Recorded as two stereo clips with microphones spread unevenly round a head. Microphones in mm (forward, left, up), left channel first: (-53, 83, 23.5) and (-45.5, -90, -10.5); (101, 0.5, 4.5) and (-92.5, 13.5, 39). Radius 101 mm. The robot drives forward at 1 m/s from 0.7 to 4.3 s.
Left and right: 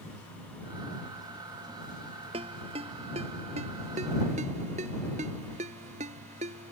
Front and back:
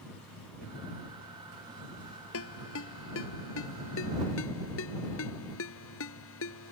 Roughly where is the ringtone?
Ahead.